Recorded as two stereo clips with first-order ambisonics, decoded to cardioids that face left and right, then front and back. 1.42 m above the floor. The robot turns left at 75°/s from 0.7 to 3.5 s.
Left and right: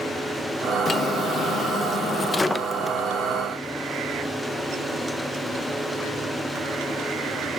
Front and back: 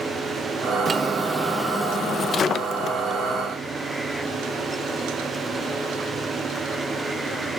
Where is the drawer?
140° left, 0.5 m; by 3.0 s 15° right, 0.5 m.